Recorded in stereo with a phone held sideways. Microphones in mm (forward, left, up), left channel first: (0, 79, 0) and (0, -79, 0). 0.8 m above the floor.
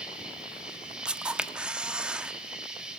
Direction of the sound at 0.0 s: 5° right (ahead or behind).